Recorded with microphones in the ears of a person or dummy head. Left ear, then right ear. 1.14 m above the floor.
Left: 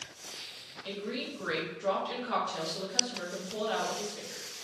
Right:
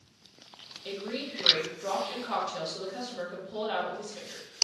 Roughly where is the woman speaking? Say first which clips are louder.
Right 1 dB; centre.